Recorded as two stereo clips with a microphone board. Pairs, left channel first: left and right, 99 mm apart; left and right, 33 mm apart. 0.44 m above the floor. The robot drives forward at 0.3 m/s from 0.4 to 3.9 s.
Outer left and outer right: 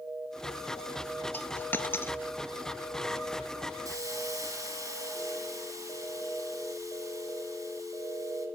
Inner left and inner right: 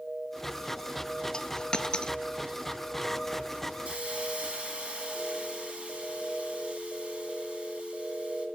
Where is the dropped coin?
20° left (ahead or behind), 0.7 m; by 2.2 s 25° left (ahead or behind), 0.5 m.